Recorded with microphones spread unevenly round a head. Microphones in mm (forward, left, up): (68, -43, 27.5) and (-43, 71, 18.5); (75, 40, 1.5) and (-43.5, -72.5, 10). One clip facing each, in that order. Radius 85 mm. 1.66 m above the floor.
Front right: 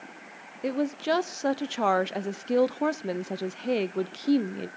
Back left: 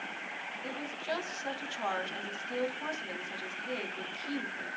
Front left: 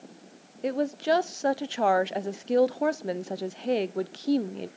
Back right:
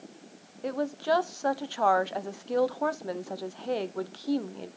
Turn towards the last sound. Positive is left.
turn(degrees=-20)